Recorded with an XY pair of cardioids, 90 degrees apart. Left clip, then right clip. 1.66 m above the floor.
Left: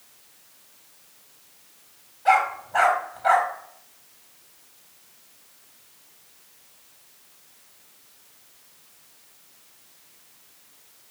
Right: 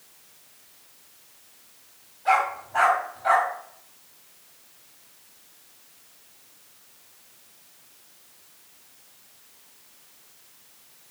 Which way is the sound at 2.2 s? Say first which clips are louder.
Left 2 dB; 50° left.